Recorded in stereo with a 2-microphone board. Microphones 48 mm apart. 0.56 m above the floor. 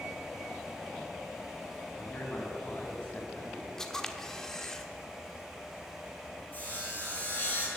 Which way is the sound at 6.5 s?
35° left (ahead or behind).